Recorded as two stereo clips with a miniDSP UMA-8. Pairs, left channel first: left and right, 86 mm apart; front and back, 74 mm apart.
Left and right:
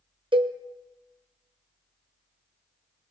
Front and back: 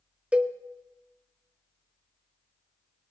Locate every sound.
0.3 s a cowbell: 105° right, 0.7 m